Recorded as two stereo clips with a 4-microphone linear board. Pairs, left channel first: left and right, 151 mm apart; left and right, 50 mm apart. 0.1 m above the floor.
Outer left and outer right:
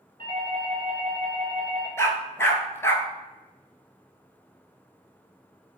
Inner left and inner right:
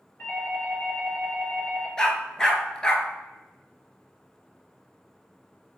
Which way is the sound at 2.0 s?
15° left (ahead or behind).